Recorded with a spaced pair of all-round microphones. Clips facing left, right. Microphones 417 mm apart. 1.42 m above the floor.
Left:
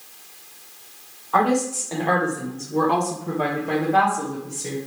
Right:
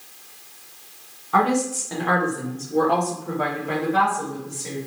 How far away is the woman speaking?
About 1.0 m.